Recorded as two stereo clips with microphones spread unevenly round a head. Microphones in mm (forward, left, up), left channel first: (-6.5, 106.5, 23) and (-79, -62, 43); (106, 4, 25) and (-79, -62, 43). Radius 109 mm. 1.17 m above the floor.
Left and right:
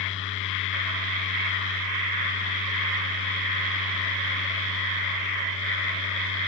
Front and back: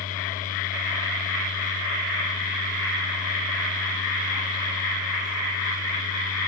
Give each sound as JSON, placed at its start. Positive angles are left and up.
{"t": 0.0, "sound": "a fan", "azimuth_deg": 75, "distance_m": 1.2}